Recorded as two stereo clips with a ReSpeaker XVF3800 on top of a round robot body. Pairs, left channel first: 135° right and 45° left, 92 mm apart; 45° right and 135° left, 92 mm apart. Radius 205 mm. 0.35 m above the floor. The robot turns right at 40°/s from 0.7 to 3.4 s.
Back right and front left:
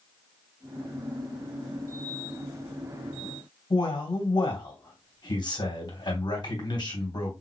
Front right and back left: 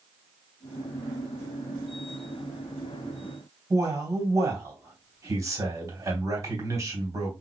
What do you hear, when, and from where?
3.7 s a man speaking: 170° right, 2.5 m